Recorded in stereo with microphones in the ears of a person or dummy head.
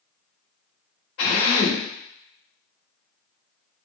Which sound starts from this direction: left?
A drill, at 1.2 s.